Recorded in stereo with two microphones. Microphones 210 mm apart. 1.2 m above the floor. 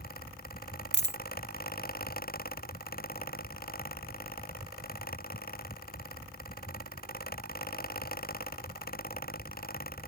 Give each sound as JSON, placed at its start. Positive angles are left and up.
{"t": 0.9, "sound": "a dropped coin", "side_deg": 55}